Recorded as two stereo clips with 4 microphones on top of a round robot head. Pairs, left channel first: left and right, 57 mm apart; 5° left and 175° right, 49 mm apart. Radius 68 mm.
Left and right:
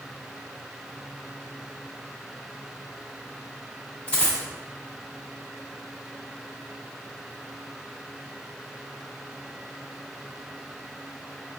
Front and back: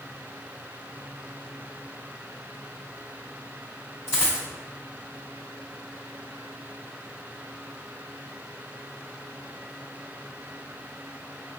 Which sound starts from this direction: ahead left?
A dropped coin, at 4.1 s.